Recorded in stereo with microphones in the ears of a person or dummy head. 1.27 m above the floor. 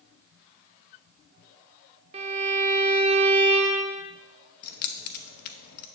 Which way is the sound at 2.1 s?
35° right (ahead or behind).